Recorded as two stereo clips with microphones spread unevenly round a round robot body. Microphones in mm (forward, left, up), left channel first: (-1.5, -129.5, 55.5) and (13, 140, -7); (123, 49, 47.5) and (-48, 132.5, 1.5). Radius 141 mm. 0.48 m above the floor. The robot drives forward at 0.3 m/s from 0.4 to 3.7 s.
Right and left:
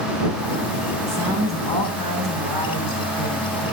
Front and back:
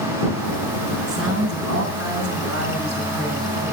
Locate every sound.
1.1 s a woman speaking: 165° right, 4 m